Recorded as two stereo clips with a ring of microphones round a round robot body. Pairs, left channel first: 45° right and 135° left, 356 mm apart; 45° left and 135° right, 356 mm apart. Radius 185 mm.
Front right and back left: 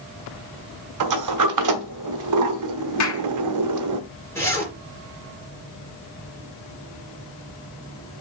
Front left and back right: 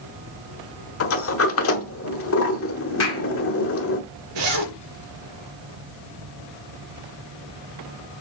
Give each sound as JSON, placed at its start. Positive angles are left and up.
{"t": 1.0, "sound": "a sliding door", "azimuth_deg": 95, "distance_m": 1.1}
{"t": 3.0, "sound": "a clap", "azimuth_deg": -5, "distance_m": 2.0}
{"t": 4.3, "sound": "a zipper", "azimuth_deg": -125, "distance_m": 4.0}